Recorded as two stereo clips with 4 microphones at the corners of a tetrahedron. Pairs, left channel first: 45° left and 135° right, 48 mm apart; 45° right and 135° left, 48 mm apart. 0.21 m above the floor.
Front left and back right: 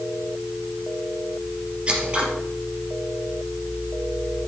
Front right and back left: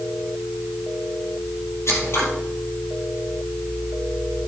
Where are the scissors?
65° right, 3 m.